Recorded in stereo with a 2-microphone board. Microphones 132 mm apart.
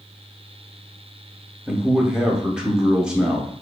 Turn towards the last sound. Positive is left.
turn(degrees=-5)  # may be behind; listen again after turning